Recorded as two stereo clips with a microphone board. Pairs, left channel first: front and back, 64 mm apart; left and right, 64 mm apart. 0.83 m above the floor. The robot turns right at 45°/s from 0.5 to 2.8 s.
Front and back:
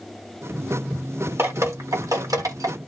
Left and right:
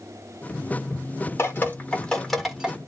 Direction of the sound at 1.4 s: 135° left.